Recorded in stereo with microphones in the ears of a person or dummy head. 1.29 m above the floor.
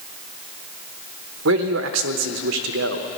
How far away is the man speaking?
About 0.9 m.